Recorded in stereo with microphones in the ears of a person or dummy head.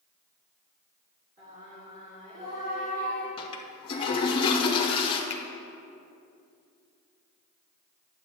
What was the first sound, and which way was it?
Singing, 35° right (ahead or behind).